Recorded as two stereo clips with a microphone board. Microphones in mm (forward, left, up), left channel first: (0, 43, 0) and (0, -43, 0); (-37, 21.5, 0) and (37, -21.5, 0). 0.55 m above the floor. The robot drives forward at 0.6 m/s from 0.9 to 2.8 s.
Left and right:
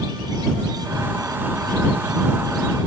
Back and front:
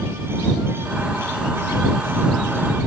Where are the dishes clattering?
I don't hear dishes clattering.